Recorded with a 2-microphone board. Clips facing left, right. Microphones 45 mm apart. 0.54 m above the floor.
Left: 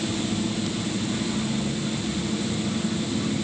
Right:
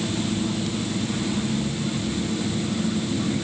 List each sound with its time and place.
Only background noise.